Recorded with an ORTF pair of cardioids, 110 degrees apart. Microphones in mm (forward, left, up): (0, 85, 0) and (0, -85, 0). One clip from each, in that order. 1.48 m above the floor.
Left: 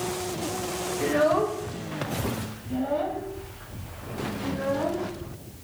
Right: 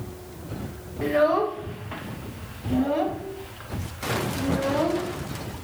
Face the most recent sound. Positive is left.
turn(degrees=-65)